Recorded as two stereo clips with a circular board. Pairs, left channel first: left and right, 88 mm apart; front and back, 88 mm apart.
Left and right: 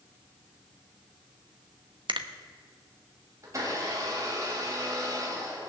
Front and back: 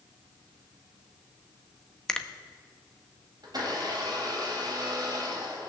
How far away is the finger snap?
About 0.8 m.